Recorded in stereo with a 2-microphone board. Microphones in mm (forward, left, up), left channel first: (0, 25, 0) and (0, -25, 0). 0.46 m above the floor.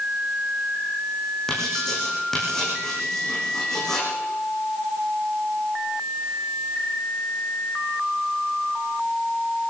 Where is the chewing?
No chewing in this recording.